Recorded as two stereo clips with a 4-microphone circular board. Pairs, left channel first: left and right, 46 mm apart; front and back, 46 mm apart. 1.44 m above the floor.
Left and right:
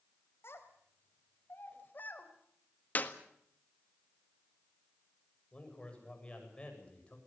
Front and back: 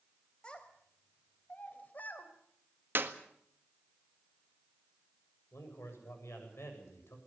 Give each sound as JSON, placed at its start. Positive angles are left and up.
{"t": 0.4, "sound": "a child speaking", "azimuth_deg": 70, "distance_m": 4.0}
{"t": 3.0, "sound": "a clap", "azimuth_deg": 140, "distance_m": 1.6}
{"t": 5.5, "sound": "a man speaking", "azimuth_deg": 25, "distance_m": 8.0}